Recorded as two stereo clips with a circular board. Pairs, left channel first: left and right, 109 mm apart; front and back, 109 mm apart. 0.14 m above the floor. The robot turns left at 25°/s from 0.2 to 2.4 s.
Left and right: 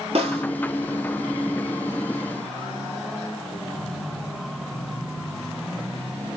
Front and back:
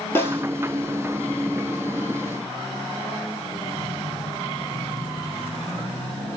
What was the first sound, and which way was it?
A snare drum, 70° right.